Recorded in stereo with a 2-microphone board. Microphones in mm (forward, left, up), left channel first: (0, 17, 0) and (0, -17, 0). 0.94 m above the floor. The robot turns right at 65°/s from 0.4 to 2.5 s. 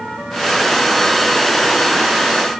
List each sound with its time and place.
Only background noise.